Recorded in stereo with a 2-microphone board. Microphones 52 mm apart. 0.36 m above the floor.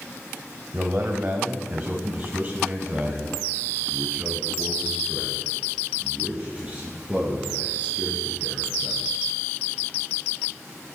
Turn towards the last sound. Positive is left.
turn(degrees=-20)  # may be behind; listen again after turning